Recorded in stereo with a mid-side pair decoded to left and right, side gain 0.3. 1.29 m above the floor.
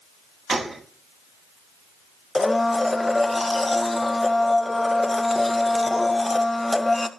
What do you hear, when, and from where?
0.5 s a gunshot: 35° right, 6 m
2.4 s a blender: 20° left, 1.8 m